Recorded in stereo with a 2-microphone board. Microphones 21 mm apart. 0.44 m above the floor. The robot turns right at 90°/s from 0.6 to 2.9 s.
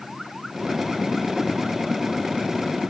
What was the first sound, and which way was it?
Only background noise.